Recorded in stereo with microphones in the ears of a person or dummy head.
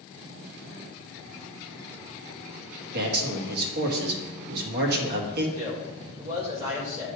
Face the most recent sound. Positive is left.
turn(degrees=-35)  # may be behind; listen again after turning